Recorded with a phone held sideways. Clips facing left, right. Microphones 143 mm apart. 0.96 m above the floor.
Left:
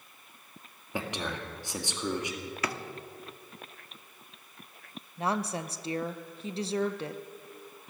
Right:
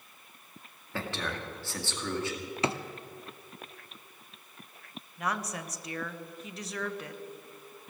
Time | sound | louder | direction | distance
0.9 | a man speaking | left 1 dB | 15° left (ahead or behind) | 1.9 m
2.6 | a drawer | right 5 dB | 25° right (ahead or behind) | 0.7 m
5.2 | a woman speaking | left 4 dB | 30° left (ahead or behind) | 0.6 m